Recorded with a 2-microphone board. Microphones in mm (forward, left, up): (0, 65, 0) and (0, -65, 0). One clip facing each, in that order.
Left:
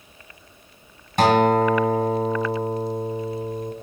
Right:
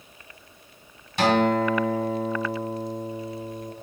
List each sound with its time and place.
1.2 s a guitar: 50° left (ahead or behind), 2.5 m